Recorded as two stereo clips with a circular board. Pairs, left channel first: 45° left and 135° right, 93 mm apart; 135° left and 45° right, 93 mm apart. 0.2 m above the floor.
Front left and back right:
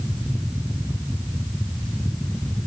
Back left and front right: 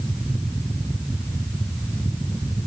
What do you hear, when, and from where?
Only background noise.